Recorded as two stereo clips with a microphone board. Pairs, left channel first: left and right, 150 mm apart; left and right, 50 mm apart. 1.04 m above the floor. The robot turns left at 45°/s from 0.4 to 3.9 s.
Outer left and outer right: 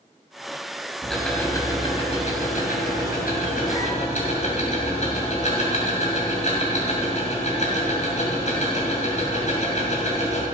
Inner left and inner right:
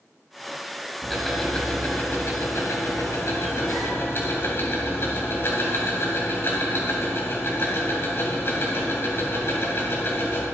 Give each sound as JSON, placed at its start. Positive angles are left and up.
{"t": 1.0, "sound": "ticking", "azimuth_deg": -175, "distance_m": 3.0}